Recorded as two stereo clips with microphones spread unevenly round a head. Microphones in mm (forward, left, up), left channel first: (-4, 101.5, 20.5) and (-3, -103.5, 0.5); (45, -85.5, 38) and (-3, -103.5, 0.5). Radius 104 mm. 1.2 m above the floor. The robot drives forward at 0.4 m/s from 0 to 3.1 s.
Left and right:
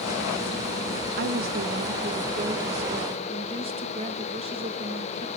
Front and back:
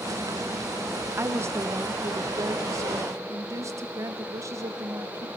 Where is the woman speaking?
130° right, 0.9 m; by 5.3 s 155° right, 1.5 m.